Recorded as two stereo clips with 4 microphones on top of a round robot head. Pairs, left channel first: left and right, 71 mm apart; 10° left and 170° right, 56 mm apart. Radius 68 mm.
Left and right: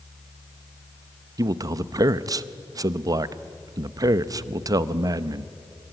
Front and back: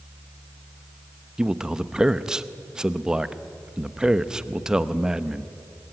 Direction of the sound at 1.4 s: 95° right.